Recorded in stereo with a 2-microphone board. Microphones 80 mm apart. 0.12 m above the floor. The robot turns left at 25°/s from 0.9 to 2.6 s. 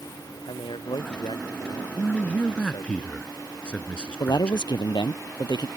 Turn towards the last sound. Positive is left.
turn(degrees=65)  # may be behind; listen again after turning